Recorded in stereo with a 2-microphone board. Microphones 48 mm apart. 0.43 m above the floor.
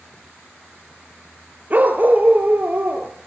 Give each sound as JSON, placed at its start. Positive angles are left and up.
{"t": 1.7, "sound": "a dog barking", "side_deg": -35, "distance_m": 3.0}